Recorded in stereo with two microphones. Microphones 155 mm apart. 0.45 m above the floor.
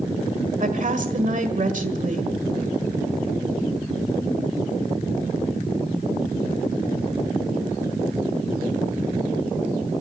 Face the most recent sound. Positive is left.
turn(degrees=-55)  # may be behind; listen again after turning